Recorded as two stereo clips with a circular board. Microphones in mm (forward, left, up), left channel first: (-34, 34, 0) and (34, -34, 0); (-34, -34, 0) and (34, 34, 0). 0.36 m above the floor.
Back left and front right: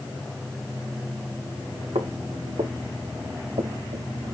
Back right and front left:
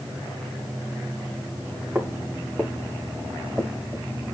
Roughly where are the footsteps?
Ahead right.